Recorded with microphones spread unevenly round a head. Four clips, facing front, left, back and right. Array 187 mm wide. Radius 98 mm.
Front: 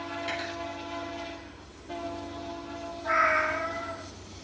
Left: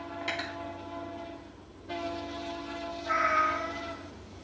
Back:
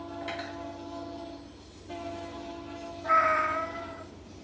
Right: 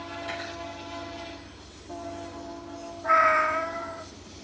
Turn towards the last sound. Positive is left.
turn(degrees=-105)